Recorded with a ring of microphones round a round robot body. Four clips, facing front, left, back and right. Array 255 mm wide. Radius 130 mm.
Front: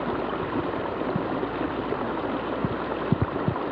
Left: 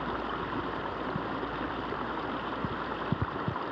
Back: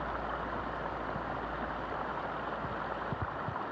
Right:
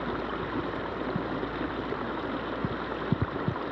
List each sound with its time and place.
0.0 s running water: 10° right